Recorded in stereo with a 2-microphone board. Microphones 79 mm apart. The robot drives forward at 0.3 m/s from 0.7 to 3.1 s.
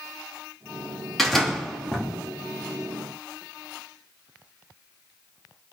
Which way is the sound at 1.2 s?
5° left (ahead or behind).